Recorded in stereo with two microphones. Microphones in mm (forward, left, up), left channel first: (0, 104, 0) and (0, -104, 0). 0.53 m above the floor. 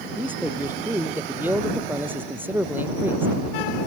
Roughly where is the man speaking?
Centre.